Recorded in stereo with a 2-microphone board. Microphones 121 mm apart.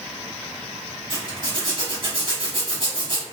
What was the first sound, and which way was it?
A zipper, 40° right (ahead or behind).